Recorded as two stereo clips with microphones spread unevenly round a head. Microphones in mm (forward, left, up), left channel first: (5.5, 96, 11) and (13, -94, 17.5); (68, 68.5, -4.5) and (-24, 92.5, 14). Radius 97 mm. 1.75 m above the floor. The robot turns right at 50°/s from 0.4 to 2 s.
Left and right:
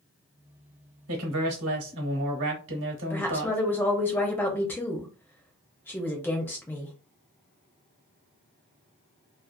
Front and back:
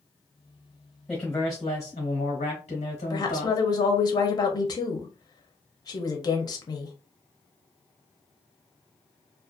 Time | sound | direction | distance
1.1 | a man speaking | 110° right | 1.0 m
3.1 | a woman speaking | 15° left | 0.6 m